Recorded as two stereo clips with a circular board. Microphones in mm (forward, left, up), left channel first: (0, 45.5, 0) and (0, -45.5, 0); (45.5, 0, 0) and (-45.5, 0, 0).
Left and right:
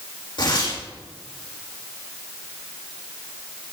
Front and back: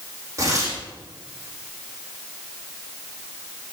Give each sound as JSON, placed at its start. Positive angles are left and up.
{"t": 0.4, "sound": "tearing paper", "azimuth_deg": 125, "distance_m": 6.5}